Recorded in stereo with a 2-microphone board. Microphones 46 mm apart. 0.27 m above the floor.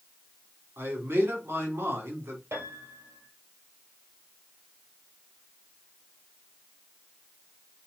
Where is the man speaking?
60° right (ahead or behind), 2 m.